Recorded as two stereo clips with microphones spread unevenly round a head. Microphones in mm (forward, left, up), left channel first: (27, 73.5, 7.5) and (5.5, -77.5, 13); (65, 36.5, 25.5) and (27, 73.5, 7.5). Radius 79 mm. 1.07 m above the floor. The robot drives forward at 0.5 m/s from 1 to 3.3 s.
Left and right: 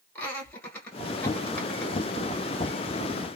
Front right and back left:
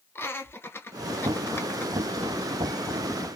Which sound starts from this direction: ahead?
Laughter, at 0.1 s.